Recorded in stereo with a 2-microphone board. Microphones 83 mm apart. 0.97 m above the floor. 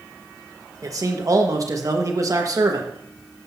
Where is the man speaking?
45° right (ahead or behind), 1.3 m.